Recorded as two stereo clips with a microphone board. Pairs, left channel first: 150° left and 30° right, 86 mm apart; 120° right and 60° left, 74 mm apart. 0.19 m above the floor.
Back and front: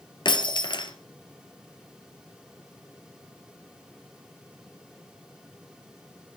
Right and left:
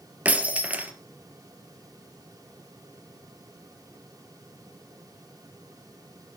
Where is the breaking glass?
130° left, 1.9 m.